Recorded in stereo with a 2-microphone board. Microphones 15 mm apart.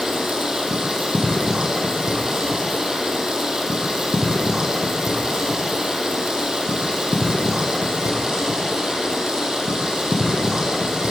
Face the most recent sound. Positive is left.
turn(degrees=-55)  # may be behind; listen again after turning